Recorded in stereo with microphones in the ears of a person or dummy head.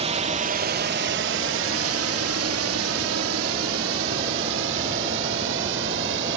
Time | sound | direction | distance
0.0 | a drone | 30° right (ahead or behind) | ?